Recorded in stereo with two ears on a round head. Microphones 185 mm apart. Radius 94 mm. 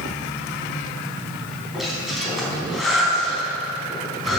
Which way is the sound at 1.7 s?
Centre (ahead or behind).